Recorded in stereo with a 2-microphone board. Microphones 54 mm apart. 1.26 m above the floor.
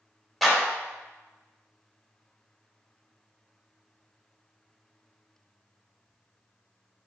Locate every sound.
0.4 s a clap: 5° left (ahead or behind), 2.0 m